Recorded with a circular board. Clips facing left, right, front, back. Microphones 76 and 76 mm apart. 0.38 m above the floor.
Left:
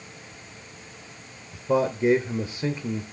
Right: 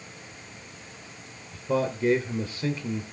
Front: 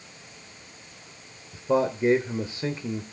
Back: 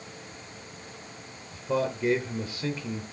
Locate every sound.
1.5 s a man speaking: 35° left, 1.0 m